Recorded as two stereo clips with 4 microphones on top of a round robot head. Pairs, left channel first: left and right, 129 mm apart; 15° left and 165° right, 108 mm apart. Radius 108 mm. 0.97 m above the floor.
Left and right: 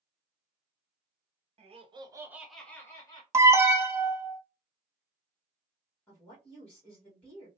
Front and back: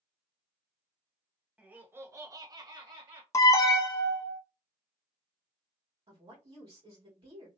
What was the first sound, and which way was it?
Laughter, 95° right.